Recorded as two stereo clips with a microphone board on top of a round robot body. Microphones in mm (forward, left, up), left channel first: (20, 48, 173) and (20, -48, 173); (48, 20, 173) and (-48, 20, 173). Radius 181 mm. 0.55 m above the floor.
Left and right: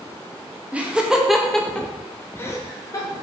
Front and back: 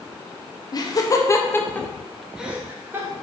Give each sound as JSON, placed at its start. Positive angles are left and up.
{"t": 0.7, "sound": "laughter", "azimuth_deg": -20, "distance_m": 1.7}